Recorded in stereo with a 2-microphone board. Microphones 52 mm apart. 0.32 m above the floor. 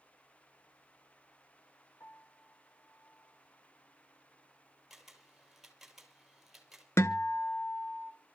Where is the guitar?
60° left (ahead or behind), 0.8 m.